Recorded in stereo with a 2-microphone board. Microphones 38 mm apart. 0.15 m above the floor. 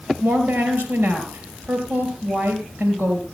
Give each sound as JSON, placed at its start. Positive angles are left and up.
{"t": 0.2, "sound": "a woman speaking", "side_deg": -60, "distance_m": 3.5}